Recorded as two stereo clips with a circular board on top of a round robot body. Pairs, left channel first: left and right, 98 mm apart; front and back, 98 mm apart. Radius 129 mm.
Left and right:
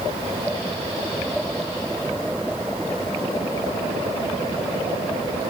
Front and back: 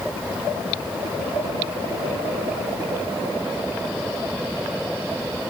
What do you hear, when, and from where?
Only background noise.